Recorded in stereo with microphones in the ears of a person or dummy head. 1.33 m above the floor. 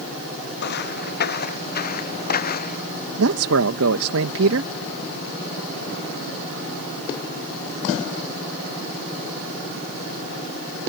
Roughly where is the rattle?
I don't hear a rattle.